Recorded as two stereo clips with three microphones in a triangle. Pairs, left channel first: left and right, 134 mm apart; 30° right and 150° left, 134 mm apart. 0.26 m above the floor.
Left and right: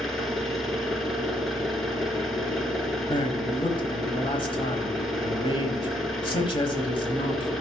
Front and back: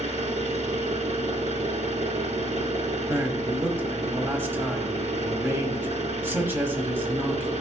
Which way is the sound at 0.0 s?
Straight behind.